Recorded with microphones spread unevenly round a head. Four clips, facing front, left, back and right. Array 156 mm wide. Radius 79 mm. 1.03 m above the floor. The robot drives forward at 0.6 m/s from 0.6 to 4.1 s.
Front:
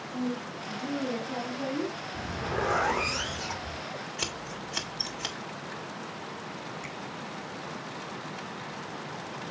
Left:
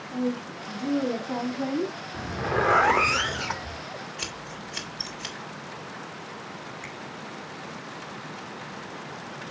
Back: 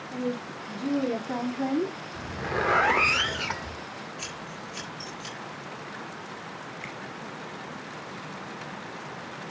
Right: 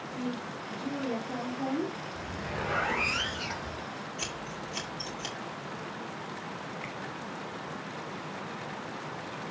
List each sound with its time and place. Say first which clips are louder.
0.1 s a woman speaking: left 8 dB, back 2 dB; 130° left, 2.5 m; by 2.0 s 145° left, 3.5 m
2.1 s a zipper: left 9 dB, back 2 dB; 90° left, 1.1 m; by 3.8 s 135° left, 1.5 m
4.2 s scissors: even, front 1 dB; 5° right, 2 m
6.8 s a finger snap: even, back 1 dB; 145° left, 5.5 m